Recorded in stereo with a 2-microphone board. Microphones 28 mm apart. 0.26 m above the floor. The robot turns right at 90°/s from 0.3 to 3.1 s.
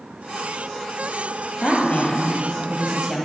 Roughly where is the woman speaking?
Ahead left.